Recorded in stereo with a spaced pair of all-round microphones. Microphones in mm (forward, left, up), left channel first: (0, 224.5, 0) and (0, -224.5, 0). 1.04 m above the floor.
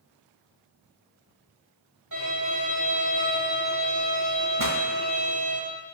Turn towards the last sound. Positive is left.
turn(degrees=-45)  # may be behind; listen again after turning